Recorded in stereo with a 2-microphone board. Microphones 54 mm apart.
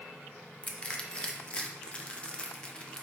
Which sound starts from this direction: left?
Crushing, at 0.6 s.